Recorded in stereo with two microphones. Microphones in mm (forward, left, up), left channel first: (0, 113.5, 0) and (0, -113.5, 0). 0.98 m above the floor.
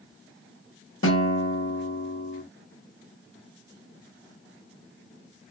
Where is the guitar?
65° left (ahead or behind), 1.0 m.